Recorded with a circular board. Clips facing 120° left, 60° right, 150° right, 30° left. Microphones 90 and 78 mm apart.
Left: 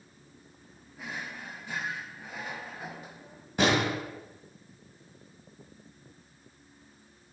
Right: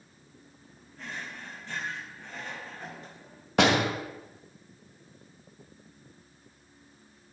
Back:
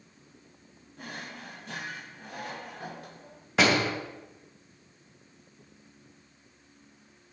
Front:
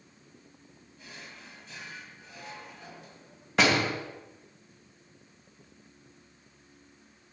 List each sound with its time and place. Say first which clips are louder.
1.0 s a drawer: left 1 dB, back 7 dB; 160° right, 0.9 m
3.6 s a door slam: right 2 dB, back 1 dB; 65° right, 2.5 m